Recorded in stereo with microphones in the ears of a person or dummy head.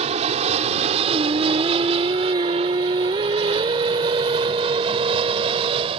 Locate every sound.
0.0 s an aircraft: 35° right (ahead or behind); by 6.0 s 30° right (ahead or behind)
1.1 s singing: 20° right (ahead or behind)